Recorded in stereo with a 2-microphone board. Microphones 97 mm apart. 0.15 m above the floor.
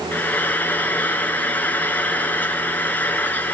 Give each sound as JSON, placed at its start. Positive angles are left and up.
{"t": 0.1, "sound": "frying", "side_deg": 20, "distance_m": 1.6}